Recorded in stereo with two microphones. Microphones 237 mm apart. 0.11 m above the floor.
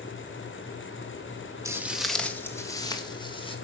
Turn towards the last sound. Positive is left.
turn(degrees=20)  # may be behind; listen again after turning